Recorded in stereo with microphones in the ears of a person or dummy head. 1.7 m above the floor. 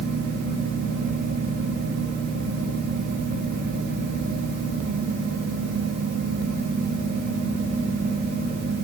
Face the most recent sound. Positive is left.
No sound to turn to.